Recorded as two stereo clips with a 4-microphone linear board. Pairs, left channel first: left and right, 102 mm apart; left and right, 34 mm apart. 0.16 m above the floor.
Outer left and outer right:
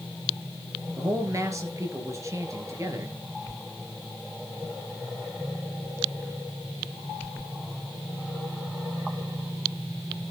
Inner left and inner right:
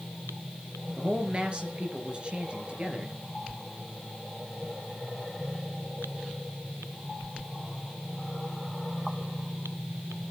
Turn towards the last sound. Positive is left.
turn(degrees=-30)  # may be behind; listen again after turning